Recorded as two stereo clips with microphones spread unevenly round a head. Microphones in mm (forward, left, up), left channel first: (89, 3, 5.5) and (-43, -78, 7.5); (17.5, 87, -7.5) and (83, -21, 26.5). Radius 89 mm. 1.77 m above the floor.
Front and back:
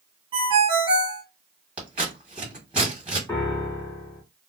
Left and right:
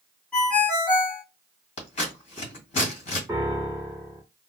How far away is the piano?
About 1.5 m.